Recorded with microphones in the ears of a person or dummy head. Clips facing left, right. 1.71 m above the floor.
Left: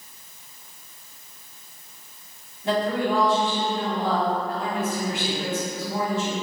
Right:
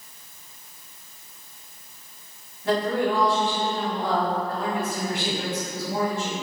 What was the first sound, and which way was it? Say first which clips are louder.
A woman speaking: even; 20° left (ahead or behind).